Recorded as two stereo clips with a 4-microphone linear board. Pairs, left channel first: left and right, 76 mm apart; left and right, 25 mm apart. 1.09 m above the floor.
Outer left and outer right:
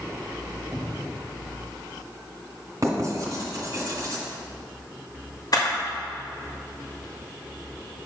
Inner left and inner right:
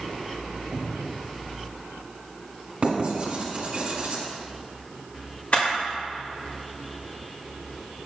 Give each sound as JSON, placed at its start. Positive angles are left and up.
{"t": 0.7, "sound": "a cupboard door", "side_deg": -25, "distance_m": 1.3}
{"t": 2.8, "sound": "writing", "side_deg": -50, "distance_m": 2.0}
{"t": 5.5, "sound": "a camera shutter", "side_deg": 55, "distance_m": 2.0}